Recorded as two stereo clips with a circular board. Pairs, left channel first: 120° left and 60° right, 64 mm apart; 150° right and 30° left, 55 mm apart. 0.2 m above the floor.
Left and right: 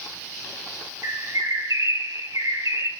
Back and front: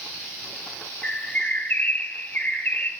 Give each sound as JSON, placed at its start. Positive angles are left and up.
{"t": 1.0, "sound": "a bird", "azimuth_deg": -90, "distance_m": 2.0}